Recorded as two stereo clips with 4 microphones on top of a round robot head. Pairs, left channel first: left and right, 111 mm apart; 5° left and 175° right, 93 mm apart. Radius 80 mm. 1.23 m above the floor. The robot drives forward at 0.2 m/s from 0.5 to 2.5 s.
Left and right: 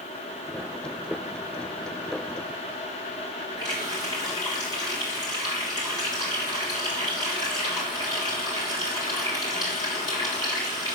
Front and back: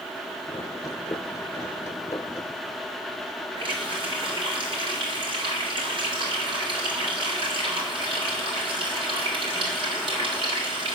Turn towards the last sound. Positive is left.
turn(degrees=155)